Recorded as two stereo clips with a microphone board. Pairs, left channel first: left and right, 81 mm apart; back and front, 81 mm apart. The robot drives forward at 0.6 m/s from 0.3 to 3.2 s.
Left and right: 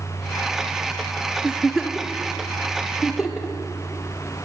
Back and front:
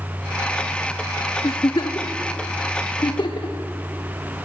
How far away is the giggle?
About 0.7 m.